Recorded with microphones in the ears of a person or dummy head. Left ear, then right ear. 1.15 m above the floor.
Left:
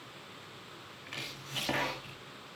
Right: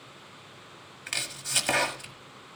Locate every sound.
1.1 s chopping: 55° right (ahead or behind), 1.4 m